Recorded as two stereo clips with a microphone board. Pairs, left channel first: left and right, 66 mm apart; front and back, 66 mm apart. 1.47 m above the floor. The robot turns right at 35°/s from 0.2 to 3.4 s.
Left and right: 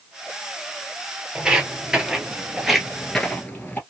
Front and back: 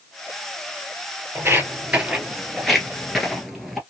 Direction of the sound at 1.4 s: 160° right.